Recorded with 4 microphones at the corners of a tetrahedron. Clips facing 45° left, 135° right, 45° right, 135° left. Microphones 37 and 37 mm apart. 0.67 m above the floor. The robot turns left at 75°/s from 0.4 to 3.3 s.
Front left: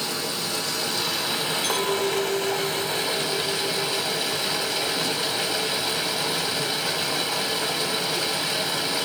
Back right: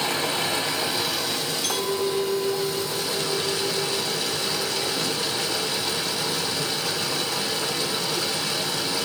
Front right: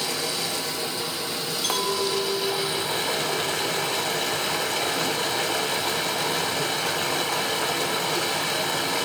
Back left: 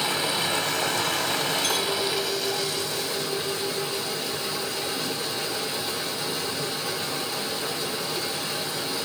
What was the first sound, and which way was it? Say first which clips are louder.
Running water: back right 4 dB, back left 3 dB; 170° right.